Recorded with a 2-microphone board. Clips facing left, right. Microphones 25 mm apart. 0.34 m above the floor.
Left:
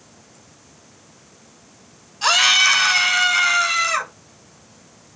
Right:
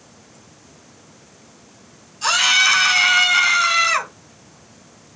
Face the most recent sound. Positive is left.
turn(degrees=-20)  # may be behind; listen again after turning